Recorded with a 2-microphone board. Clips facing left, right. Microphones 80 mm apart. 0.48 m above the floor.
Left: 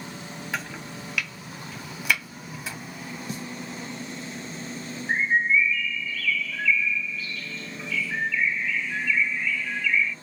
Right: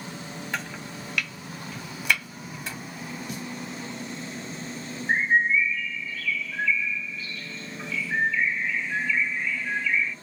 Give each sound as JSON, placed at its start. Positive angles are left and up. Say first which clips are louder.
{"t": 0.5, "sound": "chopping", "louder": "left 1 dB", "side_deg": 5, "distance_m": 1.1}
{"t": 3.3, "sound": "a snare drum", "louder": "left 3 dB", "side_deg": 30, "distance_m": 0.7}
{"t": 5.1, "sound": "a bird", "louder": "right 1 dB", "side_deg": -30, "distance_m": 0.6}